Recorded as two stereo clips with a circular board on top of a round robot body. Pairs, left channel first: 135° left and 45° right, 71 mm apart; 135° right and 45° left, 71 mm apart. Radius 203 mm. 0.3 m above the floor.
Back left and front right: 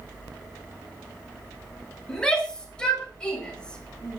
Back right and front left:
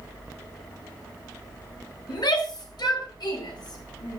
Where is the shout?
145° right, 7 m; by 4.2 s 150° right, 9 m.